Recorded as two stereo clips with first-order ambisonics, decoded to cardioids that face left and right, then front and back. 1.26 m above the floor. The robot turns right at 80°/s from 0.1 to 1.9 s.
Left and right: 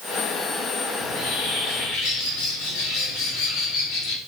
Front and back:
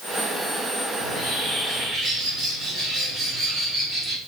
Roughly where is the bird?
Ahead.